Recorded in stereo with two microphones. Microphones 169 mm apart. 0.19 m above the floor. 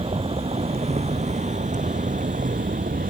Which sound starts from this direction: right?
A vehicle, at 0.0 s.